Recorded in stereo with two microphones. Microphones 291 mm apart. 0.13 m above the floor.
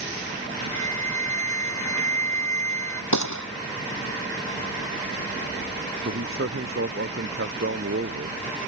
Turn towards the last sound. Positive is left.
turn(degrees=-45)  # may be behind; listen again after turning